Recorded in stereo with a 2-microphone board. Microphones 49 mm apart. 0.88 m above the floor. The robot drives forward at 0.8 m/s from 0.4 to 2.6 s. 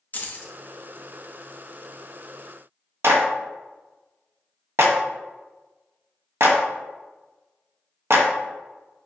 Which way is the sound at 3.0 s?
60° right (ahead or behind).